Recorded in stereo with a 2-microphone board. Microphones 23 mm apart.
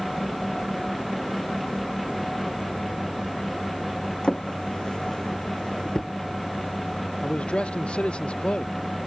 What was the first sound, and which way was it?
A drawer, 40° left (ahead or behind).